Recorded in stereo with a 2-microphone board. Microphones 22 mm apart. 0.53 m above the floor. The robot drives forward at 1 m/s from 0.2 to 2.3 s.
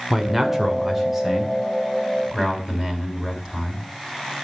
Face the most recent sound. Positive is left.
turn(degrees=-5)  # may be behind; listen again after turning